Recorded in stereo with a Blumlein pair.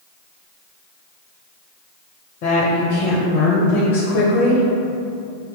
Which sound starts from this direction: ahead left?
A woman speaking, at 2.4 s.